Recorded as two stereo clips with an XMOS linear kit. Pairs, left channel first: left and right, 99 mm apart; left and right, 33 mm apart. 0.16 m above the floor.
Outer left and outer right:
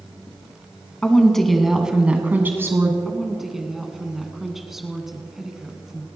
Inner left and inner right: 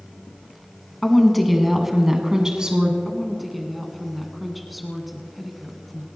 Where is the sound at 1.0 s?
10° left (ahead or behind), 1.4 m; by 3.0 s 30° right (ahead or behind), 1.3 m.